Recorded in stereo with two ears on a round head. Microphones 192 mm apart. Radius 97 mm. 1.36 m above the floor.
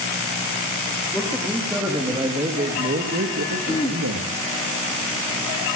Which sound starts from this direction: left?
Throat clearing, at 3.7 s.